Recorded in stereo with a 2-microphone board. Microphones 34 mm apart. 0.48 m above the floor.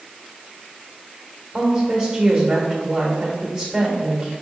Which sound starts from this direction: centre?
A woman speaking, at 1.5 s.